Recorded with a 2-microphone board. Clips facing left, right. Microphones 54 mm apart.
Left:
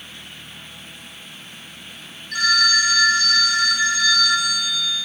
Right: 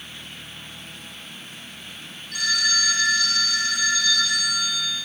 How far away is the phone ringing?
About 3 m.